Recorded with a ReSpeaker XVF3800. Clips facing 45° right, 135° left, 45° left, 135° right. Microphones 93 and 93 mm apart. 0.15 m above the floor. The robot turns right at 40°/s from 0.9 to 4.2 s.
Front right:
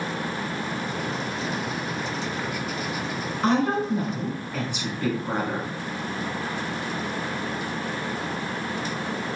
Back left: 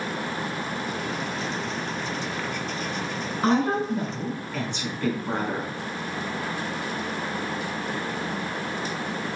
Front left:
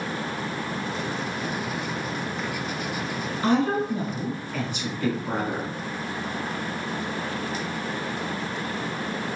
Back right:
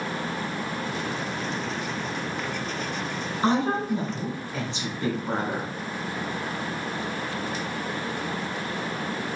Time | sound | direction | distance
3.4 | a woman speaking | 145° right | 1.3 m